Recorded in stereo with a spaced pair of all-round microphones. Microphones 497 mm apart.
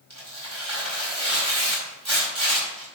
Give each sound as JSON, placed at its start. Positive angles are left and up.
{"t": 0.1, "sound": "tearing paper", "side_deg": -30, "distance_m": 4.5}